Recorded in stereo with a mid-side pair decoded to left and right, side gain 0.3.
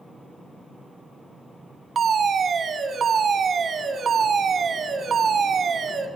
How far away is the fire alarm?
About 3 m.